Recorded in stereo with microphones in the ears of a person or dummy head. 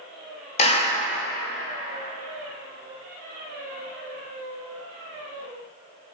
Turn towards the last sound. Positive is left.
turn(degrees=35)  # may be behind; listen again after turning